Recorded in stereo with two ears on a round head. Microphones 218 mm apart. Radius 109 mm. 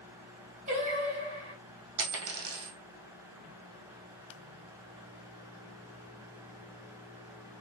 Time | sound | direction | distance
0.7 | singing | 30° right (ahead or behind) | 2.5 m
2.0 | a dropped coin | 65° right (ahead or behind) | 2 m